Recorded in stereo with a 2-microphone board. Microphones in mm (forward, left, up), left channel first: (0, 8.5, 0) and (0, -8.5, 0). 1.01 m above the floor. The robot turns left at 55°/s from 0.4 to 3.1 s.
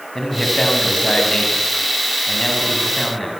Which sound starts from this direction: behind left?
A man speaking, at 0.1 s.